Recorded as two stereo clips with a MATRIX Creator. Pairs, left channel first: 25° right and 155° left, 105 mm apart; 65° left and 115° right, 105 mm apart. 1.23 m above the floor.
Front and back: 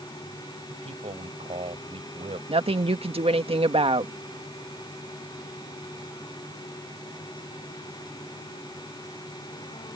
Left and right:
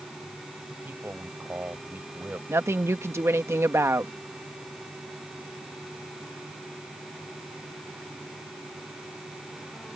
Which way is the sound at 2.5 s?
175° right.